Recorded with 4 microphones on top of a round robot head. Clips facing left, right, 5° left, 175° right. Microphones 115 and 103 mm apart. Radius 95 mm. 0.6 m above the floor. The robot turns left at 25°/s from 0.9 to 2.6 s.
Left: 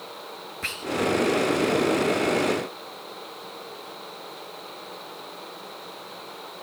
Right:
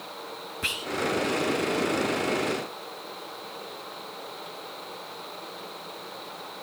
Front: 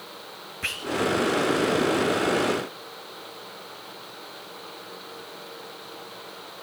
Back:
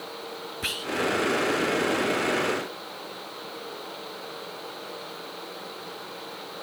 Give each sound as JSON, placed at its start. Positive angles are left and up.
{"t": 0.6, "sound": "whispering", "azimuth_deg": -140, "distance_m": 0.5}